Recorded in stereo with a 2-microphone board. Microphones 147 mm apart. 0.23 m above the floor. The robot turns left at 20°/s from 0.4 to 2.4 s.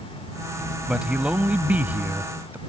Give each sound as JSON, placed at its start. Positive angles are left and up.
{"t": 0.9, "sound": "a man speaking", "side_deg": -5}